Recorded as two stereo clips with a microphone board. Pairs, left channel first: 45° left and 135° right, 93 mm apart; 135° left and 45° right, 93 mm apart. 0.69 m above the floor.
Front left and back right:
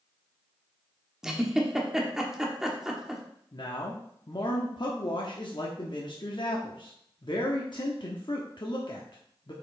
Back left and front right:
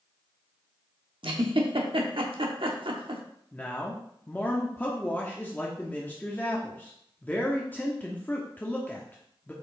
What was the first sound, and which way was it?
A giggle, 50° right.